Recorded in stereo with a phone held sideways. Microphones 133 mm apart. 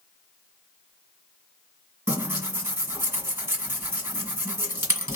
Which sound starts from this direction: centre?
Tearing paper, at 2.1 s.